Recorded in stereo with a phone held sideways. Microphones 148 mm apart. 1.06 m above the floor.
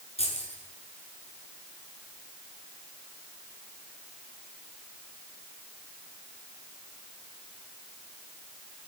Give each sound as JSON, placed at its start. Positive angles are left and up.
{"t": 0.2, "sound": "keys jangling", "side_deg": 45, "distance_m": 8.5}